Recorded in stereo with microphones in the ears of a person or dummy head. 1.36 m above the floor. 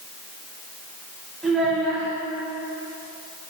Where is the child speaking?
5° left (ahead or behind), 1.0 m.